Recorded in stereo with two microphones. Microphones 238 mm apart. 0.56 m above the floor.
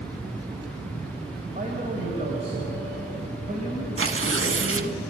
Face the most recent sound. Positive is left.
turn(degrees=-60)  # may be behind; listen again after turning